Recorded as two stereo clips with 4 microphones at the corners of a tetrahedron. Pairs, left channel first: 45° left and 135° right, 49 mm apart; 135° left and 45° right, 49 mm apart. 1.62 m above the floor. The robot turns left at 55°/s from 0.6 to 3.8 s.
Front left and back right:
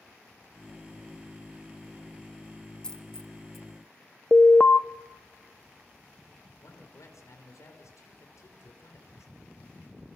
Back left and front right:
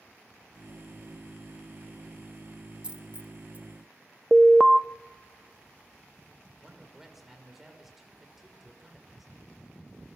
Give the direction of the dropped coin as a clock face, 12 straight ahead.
12 o'clock.